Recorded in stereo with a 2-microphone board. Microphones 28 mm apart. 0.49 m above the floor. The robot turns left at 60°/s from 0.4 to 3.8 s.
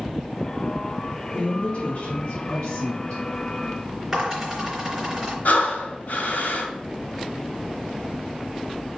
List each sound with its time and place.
1.3 s a woman speaking: 135° left, 3.5 m; by 3.2 s 25° left, 3.5 m
4.1 s a dropped coin: 10° right (ahead or behind), 3.5 m
5.5 s breathing: 70° left (ahead or behind), 1.4 m